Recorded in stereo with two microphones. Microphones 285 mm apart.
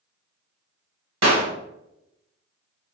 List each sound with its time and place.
1.2 s a clap: 65° right (ahead or behind), 1.6 m